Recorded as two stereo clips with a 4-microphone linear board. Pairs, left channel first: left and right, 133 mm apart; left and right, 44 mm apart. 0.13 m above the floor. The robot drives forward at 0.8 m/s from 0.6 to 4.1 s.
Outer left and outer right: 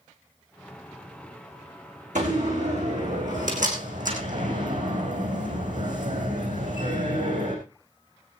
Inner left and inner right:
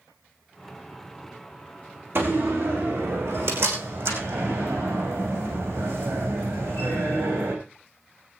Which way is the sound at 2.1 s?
60° right (ahead or behind).